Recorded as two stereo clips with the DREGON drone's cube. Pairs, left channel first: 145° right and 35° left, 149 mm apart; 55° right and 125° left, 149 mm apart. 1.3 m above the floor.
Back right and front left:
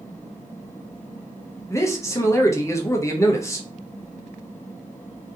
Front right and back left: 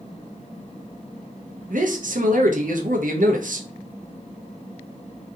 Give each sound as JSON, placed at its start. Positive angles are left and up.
{"t": 1.7, "sound": "a man speaking", "azimuth_deg": 145, "distance_m": 0.9}